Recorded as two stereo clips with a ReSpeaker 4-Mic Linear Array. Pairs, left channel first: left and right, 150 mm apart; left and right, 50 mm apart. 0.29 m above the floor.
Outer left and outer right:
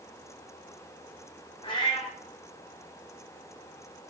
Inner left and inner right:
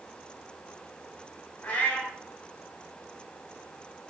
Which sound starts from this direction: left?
A cat meowing, at 1.6 s.